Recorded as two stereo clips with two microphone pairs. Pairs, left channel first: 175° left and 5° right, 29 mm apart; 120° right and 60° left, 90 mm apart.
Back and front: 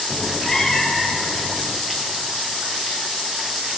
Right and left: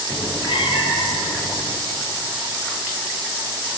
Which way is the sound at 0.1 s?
115° right.